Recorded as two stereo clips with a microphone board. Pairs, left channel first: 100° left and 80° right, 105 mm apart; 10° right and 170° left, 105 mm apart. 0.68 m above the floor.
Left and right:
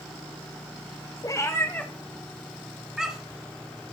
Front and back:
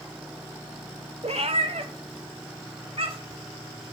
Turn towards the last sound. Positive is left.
turn(degrees=-160)